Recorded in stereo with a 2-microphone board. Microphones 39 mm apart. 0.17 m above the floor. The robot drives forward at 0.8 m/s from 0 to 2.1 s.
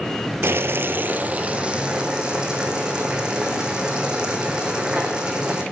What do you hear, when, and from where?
0.4 s boiling: 75° right (ahead or behind), 0.5 m; by 5.6 s 20° right (ahead or behind), 1.3 m